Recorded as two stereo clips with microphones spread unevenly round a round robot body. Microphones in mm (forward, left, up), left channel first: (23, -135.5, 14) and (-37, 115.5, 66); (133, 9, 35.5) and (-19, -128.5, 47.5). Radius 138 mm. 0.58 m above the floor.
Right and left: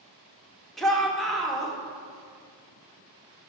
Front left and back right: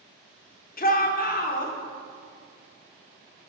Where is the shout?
5° left, 1.3 m.